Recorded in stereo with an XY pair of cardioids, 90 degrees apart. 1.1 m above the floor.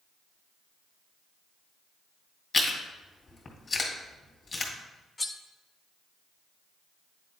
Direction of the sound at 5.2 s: 30° left.